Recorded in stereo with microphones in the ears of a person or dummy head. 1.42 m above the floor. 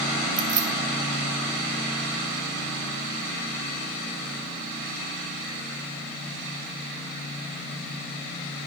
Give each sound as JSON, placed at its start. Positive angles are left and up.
{"t": 0.4, "sound": "keys jangling", "side_deg": -25, "distance_m": 1.3}